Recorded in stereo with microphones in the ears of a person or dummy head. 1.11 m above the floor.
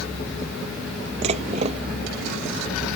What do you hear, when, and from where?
1.2 s dishes clattering: 40° right (ahead or behind)